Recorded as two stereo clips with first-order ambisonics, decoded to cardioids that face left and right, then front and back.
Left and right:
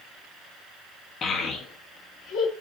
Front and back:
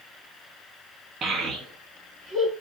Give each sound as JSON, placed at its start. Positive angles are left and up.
{"t": 1.2, "sound": "a child speaking", "azimuth_deg": 135, "distance_m": 0.8}